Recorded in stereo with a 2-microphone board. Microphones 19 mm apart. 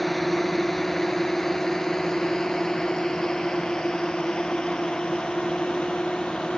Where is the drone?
10° left (ahead or behind); by 6.6 s 60° left (ahead or behind).